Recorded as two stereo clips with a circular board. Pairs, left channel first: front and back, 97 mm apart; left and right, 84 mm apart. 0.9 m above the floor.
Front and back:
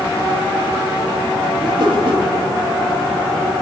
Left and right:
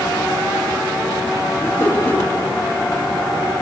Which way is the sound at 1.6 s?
145° left.